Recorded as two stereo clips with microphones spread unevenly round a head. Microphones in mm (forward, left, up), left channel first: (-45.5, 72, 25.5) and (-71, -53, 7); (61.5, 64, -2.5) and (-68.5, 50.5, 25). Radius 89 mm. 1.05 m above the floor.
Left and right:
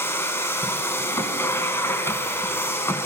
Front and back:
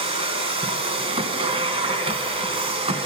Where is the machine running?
145° left, 2.5 m.